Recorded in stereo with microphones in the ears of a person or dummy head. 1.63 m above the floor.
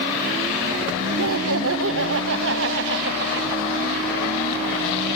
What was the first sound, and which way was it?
Laughter, 80° right.